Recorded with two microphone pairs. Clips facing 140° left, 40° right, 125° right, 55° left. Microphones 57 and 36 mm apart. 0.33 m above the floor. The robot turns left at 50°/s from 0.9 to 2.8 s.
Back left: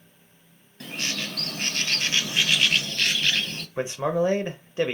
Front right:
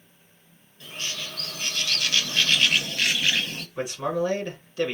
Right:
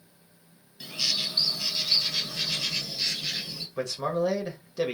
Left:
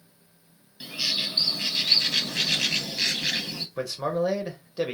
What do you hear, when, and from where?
0.8 s a bird: 135° left, 0.6 m; by 3.7 s 40° left, 0.6 m
3.8 s a man speaking: 135° left, 0.9 m